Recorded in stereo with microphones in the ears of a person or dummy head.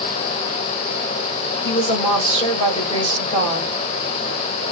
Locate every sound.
1.6 s a woman speaking: 30° left (ahead or behind), 2 m